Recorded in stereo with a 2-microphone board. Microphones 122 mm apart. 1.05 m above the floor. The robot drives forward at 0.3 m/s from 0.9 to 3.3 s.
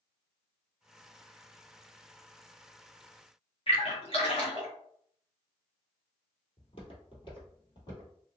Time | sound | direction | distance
3.7 | a splash | 50° left (ahead or behind) | 1.1 m
6.6 | footsteps | 50° left (ahead or behind) | 1.5 m